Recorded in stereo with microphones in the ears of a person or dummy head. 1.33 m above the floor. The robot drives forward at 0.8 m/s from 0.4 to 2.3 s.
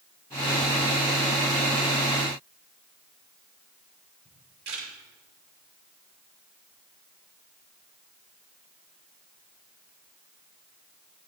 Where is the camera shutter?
75° right (ahead or behind), 6.5 m.